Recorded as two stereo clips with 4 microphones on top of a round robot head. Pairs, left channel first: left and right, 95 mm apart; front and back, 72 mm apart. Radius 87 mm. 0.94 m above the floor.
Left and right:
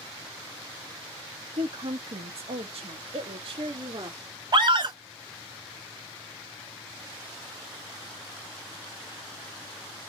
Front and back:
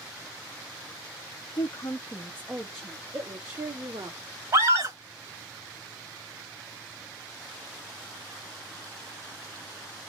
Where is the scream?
130° right, 2.5 m.